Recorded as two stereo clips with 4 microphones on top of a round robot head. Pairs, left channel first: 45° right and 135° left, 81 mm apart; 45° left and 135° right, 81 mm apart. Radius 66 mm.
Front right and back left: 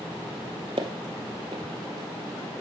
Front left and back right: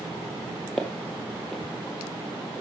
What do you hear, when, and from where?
0.8 s footsteps: 135° left, 1.2 m